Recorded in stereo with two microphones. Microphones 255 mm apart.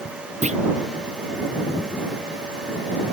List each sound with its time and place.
0.4 s a clunk: 25° right (ahead or behind)